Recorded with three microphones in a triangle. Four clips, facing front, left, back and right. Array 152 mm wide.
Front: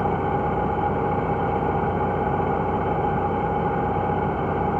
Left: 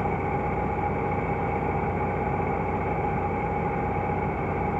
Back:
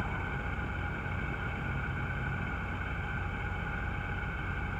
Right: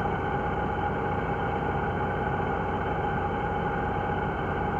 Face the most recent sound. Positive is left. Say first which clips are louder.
# left 1 dB, front 16 dB
turn(degrees=5)